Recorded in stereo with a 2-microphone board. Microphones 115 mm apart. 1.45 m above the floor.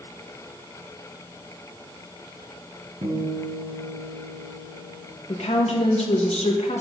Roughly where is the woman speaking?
Left.